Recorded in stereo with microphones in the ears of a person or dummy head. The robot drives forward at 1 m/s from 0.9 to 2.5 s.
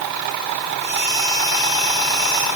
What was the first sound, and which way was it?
Only background noise.